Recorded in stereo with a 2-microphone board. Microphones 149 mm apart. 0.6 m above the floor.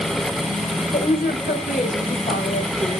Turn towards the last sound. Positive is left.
turn(degrees=75)  # may be behind; listen again after turning